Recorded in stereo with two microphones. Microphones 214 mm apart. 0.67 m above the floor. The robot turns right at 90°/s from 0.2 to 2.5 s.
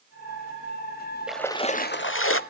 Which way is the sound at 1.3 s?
5° right.